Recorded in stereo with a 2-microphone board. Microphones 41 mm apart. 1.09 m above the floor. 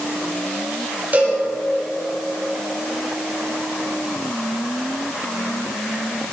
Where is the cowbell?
45° right (ahead or behind), 7.5 m.